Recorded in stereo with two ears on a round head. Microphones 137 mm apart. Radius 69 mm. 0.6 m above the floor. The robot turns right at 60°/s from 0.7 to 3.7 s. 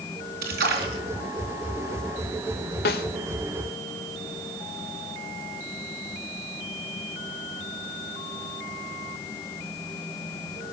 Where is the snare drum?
70° left (ahead or behind), 1.5 m.